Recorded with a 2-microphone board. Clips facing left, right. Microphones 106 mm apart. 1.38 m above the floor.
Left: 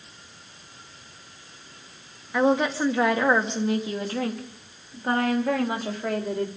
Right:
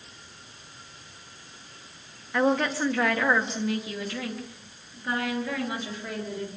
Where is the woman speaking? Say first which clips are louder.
Left 2 dB; 10° left (ahead or behind), 2.5 m; by 6.5 s 60° left (ahead or behind), 3.5 m.